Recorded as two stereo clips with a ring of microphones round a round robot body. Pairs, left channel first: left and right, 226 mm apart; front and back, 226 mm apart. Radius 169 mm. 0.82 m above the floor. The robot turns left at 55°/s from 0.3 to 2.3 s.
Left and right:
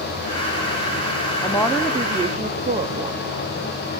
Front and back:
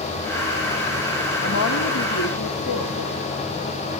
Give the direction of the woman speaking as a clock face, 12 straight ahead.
11 o'clock.